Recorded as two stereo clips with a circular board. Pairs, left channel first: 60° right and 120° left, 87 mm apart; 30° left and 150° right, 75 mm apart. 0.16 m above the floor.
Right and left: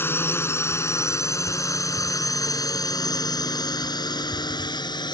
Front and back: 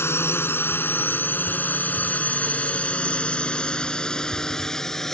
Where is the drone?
10° right; by 5.2 s 55° right.